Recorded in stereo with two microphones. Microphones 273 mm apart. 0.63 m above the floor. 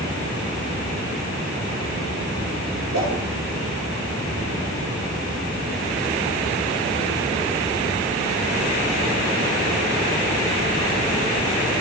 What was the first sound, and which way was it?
A whoosh, 85° right.